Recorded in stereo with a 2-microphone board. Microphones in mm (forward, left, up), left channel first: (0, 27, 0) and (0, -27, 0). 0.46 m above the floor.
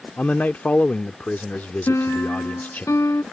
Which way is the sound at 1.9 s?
65° left (ahead or behind).